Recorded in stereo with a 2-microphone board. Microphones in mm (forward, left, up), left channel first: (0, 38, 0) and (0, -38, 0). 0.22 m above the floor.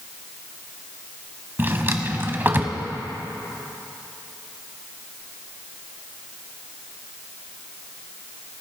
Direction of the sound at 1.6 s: 30° right (ahead or behind).